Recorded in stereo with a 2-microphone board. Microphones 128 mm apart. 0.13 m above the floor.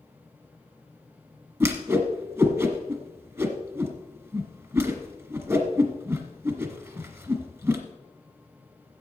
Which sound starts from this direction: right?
A whoosh, at 1.6 s.